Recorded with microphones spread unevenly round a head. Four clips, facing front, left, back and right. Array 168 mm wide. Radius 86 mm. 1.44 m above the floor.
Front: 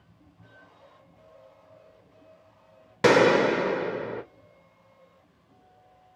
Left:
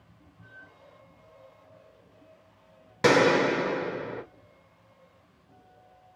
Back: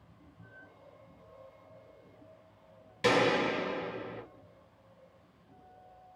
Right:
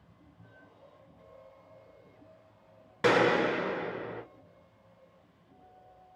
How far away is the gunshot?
About 1.1 m.